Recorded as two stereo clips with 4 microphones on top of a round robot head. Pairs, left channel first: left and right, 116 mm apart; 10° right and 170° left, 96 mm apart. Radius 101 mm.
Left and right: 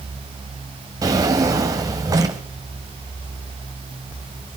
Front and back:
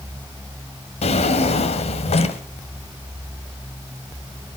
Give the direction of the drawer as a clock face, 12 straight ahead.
1 o'clock.